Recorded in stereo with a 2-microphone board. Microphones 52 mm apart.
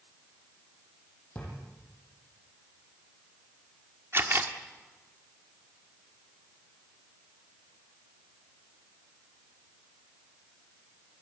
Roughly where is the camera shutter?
Right.